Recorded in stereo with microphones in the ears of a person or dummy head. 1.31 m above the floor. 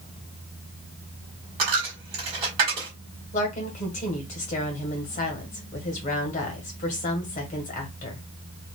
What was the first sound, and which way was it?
A dropped coin, 35° right (ahead or behind).